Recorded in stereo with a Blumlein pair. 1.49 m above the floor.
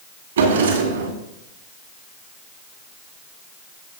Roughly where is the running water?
I don't hear running water.